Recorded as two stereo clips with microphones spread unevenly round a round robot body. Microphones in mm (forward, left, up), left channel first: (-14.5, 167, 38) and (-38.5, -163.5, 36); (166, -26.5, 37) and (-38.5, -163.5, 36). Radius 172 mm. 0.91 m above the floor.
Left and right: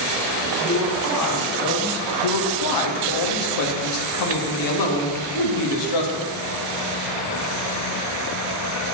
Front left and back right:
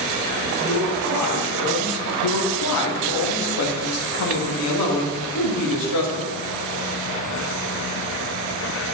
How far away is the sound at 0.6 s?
About 2.5 m.